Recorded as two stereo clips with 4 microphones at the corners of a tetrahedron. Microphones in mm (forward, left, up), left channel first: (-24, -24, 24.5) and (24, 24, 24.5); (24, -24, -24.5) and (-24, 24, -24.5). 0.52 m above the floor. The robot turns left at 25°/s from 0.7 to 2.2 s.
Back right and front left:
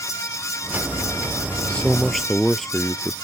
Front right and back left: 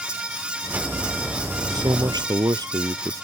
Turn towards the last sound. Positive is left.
turn(degrees=135)